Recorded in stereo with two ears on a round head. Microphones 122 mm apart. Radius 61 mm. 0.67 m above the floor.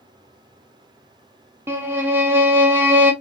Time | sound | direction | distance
1.7 | a violin | 15° right (ahead or behind) | 0.7 m